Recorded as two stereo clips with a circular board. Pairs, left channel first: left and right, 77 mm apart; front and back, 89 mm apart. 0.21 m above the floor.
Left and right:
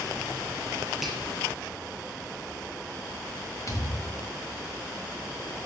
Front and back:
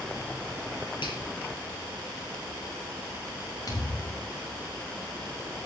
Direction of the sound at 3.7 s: 45° left.